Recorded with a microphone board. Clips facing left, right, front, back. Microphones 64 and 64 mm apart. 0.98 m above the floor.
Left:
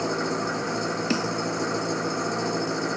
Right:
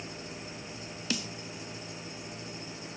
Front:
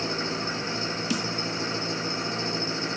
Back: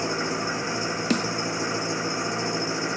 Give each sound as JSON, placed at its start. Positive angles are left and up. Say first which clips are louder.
{"t": 0.0, "sound": "an engine running", "louder": "left 17 dB, back 3 dB", "azimuth_deg": 105}
{"t": 1.1, "sound": "a snare drum", "louder": "left 8 dB, back 5 dB", "azimuth_deg": 145}